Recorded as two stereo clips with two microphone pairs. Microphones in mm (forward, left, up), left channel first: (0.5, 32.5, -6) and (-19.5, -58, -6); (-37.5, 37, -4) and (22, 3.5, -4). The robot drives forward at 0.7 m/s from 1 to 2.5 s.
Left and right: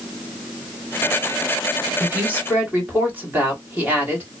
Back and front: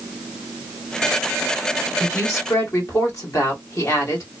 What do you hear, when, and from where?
2.0 s a woman speaking: 170° right, 1.4 m; by 4.3 s 175° right, 1.7 m